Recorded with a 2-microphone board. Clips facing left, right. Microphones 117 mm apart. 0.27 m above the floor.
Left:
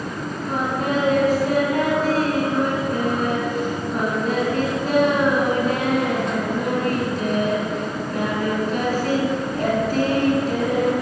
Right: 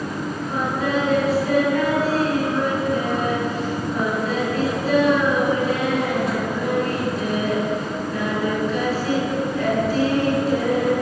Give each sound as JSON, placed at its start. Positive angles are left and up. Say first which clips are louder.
{"t": 0.5, "sound": "singing", "louder": "left 1 dB", "side_deg": 60, "distance_m": 3.5}